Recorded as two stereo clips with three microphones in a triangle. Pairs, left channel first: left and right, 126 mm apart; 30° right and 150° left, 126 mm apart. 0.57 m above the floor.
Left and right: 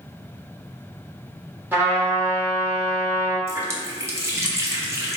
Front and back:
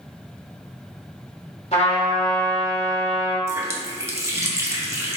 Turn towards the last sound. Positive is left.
turn(degrees=-150)